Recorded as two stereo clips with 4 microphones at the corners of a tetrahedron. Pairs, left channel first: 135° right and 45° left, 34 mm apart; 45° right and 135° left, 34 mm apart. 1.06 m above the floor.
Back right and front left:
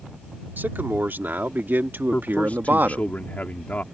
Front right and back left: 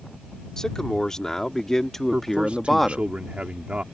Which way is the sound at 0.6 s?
25° left.